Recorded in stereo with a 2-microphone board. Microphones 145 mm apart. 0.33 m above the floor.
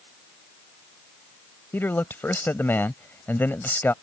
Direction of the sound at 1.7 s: 15° left (ahead or behind).